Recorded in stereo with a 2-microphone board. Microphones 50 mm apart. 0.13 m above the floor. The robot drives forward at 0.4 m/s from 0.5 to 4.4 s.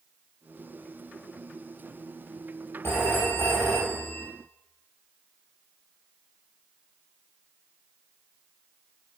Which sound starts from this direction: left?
A phone ringing, at 2.8 s.